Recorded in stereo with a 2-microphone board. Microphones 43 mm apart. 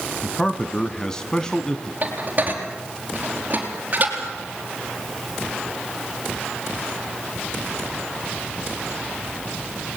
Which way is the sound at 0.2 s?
15° left (ahead or behind).